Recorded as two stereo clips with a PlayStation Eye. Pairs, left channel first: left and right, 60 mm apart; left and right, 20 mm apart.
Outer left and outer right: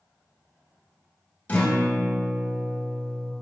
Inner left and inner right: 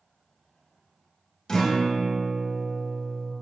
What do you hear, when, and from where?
1.5 s a guitar: 30° left (ahead or behind), 0.9 m